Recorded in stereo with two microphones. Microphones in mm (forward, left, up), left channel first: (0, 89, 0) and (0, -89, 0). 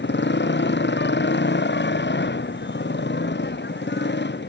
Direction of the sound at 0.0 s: 85° left.